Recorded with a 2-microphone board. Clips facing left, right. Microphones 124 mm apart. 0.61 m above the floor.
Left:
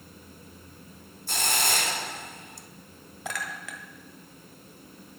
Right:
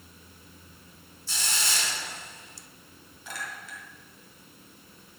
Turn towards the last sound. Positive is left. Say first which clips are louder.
# left 4 dB
turn(degrees=85)